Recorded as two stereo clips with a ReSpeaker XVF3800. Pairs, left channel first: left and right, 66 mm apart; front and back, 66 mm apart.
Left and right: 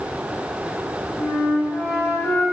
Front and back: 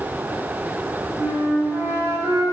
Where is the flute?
140° left, 2.5 m.